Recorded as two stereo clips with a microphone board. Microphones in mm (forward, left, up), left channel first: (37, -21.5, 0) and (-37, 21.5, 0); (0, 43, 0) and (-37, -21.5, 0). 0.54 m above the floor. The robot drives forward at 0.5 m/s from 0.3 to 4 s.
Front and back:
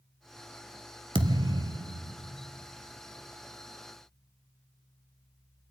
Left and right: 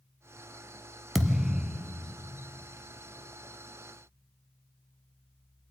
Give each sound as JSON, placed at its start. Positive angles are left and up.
{"t": 1.1, "sound": "a thud", "azimuth_deg": 155, "distance_m": 0.8}